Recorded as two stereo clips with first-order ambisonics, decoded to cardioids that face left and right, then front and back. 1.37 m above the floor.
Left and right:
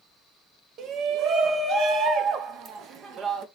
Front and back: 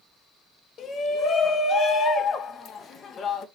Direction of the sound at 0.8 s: 50° right.